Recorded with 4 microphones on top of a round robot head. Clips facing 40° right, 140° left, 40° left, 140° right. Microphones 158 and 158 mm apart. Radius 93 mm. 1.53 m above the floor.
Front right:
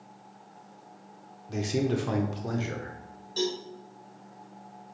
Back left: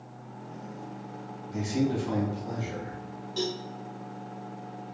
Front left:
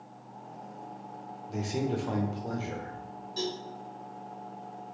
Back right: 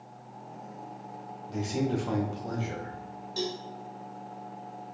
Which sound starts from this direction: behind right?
A cowbell, at 3.4 s.